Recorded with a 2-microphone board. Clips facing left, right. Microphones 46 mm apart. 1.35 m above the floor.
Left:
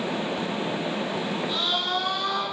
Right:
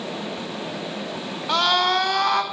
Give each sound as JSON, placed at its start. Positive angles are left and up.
{"t": 1.5, "sound": "a scream", "side_deg": -70, "distance_m": 4.5}